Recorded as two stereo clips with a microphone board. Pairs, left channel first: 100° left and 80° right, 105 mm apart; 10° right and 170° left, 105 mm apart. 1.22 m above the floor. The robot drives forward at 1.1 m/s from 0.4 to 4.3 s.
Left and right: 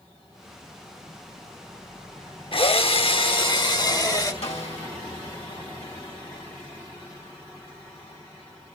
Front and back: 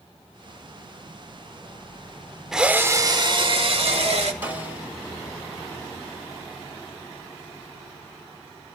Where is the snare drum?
100° left, 3 m.